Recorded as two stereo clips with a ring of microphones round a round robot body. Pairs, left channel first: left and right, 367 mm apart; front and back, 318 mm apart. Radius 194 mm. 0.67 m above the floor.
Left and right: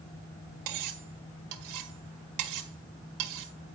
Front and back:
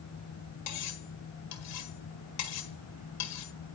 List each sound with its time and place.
0.7 s cutlery clinking: 50° right, 1.5 m